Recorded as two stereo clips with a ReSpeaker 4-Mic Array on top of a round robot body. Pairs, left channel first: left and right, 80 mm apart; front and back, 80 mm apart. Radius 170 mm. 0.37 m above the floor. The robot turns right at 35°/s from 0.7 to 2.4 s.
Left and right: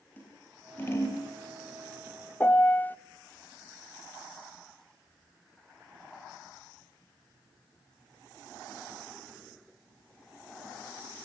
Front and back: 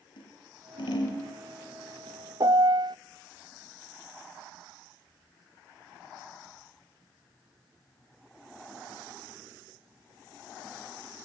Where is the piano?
155° left, 0.7 m.